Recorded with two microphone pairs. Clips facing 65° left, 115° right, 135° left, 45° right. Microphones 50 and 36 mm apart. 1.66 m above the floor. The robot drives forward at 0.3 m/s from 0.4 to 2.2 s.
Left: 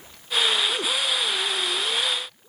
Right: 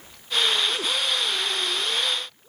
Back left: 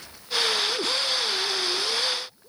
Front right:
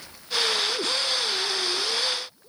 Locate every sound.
Only background noise.